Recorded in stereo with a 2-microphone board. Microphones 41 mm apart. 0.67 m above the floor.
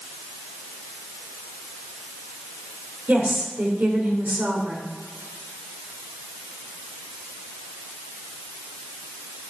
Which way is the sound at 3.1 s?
50° right (ahead or behind).